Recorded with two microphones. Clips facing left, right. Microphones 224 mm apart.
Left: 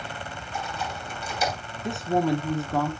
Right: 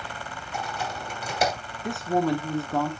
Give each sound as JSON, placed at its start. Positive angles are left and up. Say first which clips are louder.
{"t": 0.5, "sound": "typing on a keyboard", "louder": "right 1 dB", "side_deg": -70, "distance_m": 3.0}
{"t": 1.8, "sound": "a woman speaking", "louder": "even", "side_deg": 0, "distance_m": 1.0}